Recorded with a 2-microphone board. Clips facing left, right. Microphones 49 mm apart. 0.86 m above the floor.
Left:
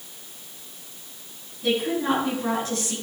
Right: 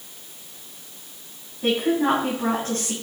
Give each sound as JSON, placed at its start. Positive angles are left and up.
{"t": 1.6, "sound": "a woman speaking", "side_deg": -45, "distance_m": 7.0}